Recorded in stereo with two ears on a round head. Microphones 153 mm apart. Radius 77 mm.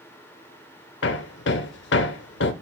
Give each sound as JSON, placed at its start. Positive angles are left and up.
{"t": 1.0, "sound": "hammering", "side_deg": 75, "distance_m": 0.5}